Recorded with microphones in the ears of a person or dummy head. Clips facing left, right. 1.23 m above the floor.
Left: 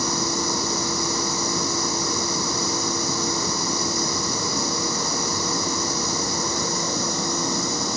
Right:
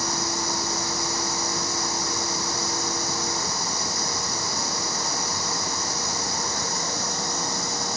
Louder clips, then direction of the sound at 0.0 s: Left 4 dB; 85° left.